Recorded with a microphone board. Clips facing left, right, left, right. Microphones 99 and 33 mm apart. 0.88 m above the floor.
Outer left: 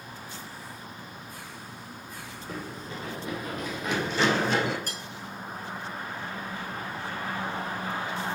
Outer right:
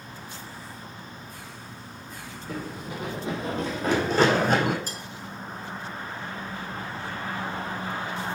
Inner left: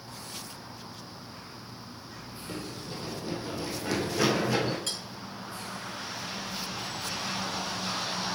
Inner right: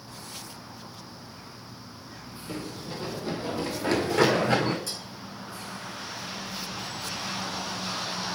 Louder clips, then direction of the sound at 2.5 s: Outer right 3 dB, inner right 3 dB; centre (ahead or behind).